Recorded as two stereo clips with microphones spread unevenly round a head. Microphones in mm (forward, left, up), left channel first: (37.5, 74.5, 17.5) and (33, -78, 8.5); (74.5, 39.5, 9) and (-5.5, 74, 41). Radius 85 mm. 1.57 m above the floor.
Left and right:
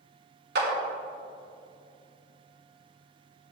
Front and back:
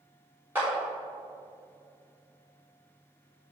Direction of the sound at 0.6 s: 130° right.